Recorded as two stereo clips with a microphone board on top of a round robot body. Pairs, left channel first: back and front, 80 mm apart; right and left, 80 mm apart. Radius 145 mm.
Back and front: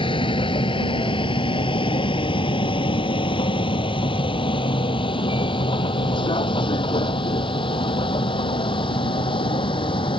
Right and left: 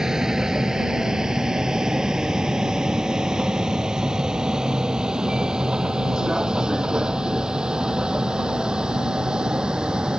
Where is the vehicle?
175° left; by 10.2 s 170° left.